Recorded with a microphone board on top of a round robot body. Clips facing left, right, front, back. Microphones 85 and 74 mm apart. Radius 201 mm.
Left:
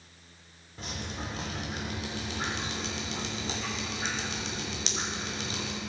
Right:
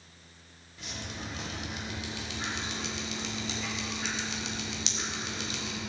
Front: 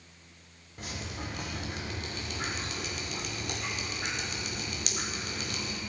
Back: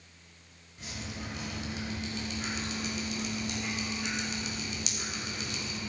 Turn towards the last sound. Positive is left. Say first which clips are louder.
# left 3 dB, front 2 dB
turn(degrees=40)